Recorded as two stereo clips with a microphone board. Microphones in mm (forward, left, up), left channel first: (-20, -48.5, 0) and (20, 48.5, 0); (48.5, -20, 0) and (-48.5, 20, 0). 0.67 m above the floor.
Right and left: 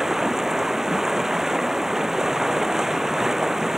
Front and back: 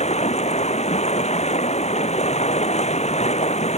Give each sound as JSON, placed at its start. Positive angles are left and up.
{"t": 0.0, "sound": "running water", "azimuth_deg": -20}